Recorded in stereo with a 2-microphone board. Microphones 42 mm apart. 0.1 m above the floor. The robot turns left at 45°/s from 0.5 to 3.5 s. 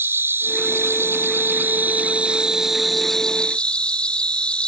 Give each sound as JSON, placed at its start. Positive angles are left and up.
{"t": 0.0, "sound": "an insect", "azimuth_deg": -75}